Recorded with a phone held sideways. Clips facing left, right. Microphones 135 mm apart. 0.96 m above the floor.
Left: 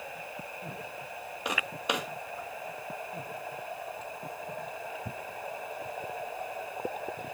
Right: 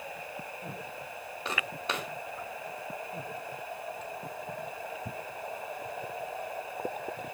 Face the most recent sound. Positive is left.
turn(degrees=15)  # may be behind; listen again after turning